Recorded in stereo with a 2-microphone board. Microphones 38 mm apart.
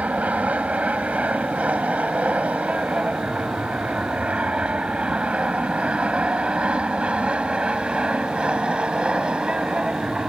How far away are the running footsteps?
I don't hear running footsteps.